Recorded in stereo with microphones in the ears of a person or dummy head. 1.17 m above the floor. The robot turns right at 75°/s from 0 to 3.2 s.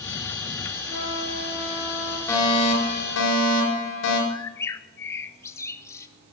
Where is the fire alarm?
20° left, 7.5 m; by 4.2 s 85° left, 7.5 m.